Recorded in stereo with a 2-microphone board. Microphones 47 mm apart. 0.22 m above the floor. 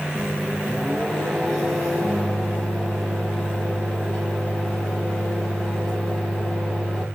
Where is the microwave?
15° left (ahead or behind), 1.4 m.